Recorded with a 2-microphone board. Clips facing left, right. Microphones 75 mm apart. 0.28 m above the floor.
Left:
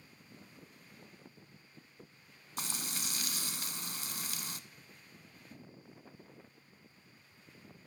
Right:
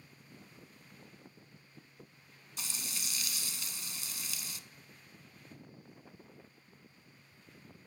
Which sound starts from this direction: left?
Frying, at 2.6 s.